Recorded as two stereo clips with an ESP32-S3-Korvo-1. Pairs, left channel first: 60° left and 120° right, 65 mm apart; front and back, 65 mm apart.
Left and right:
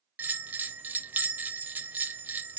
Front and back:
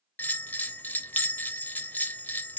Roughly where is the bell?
Ahead right.